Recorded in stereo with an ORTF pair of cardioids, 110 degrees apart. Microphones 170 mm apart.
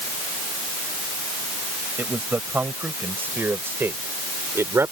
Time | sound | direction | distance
2.0 | a man speaking | 10° right | ?